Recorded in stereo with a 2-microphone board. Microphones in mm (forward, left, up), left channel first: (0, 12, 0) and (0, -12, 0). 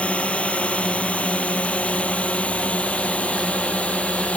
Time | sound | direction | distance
0.0 | a drone | 65° left (ahead or behind) | ?